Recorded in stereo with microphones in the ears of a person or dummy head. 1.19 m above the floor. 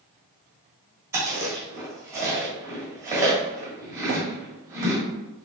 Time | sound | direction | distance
1.1 | chewing | 15° right (ahead or behind) | 2 m
4.1 | a thud | 35° right (ahead or behind) | 0.8 m